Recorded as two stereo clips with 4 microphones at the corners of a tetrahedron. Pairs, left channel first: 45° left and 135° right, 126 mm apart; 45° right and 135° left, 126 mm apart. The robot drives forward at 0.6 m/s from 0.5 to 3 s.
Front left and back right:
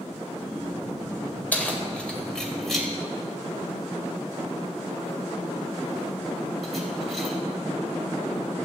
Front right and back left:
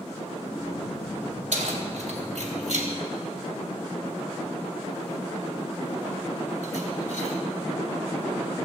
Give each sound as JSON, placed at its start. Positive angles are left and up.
{"t": 1.5, "sound": "keys jangling", "azimuth_deg": 120, "distance_m": 2.5}